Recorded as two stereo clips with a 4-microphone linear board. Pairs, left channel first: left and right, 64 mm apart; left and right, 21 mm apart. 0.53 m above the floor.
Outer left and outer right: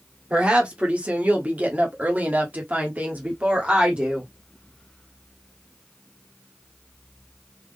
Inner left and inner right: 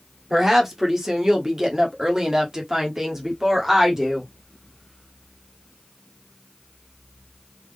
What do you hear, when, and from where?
0.3 s a woman speaking: 20° right (ahead or behind), 1.6 m